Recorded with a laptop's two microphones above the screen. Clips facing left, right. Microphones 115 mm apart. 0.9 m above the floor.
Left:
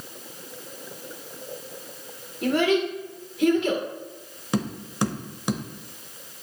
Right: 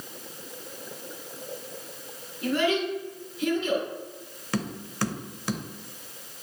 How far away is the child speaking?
About 1.9 m.